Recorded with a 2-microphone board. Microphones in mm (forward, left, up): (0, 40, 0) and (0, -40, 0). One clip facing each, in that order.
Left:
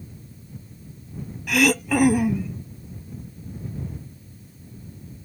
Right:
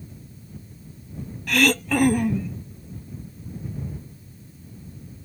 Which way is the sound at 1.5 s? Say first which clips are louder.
Left 1 dB; 5° left (ahead or behind).